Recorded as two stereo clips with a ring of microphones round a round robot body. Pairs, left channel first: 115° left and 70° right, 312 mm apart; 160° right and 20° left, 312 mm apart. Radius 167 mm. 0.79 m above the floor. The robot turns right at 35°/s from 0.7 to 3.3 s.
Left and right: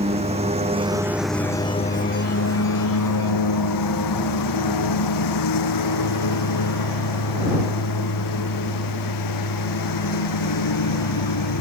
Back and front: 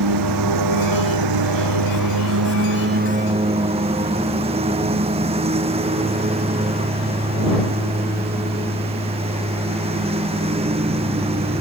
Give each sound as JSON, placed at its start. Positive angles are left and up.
{"t": 0.0, "sound": "a lawn mower", "azimuth_deg": 5}